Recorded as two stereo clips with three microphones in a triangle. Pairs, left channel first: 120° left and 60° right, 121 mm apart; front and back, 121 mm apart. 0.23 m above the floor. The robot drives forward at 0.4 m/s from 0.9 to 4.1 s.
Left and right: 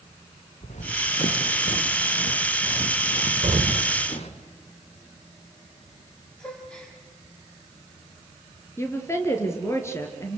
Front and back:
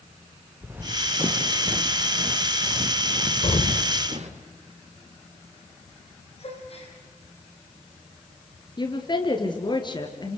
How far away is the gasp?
About 5.5 m.